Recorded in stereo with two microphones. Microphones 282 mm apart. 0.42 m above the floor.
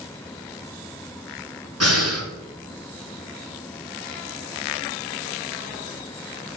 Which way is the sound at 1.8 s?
55° right (ahead or behind).